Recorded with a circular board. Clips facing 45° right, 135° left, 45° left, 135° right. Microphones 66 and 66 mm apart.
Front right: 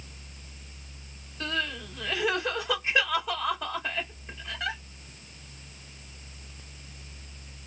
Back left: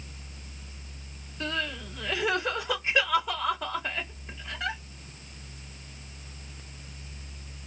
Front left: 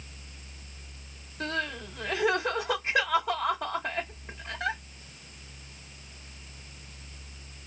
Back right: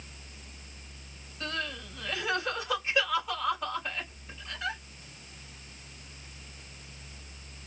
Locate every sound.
1.4 s crying: 45° left, 2 m